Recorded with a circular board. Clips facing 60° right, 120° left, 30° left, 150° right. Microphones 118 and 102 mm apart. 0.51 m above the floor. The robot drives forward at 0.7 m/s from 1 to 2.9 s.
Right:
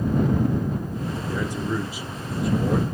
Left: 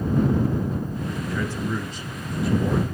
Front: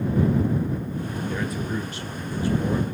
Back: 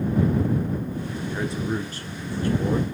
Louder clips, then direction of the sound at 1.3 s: Right 1 dB, back 3 dB; 100° right.